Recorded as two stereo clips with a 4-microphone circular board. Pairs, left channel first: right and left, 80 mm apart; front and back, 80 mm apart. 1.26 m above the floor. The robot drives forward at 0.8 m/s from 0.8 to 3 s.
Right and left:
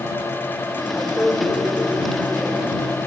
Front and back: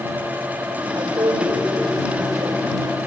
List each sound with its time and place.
0.9 s a woman speaking: 160° right, 5 m; by 2.7 s 165° right, 6.5 m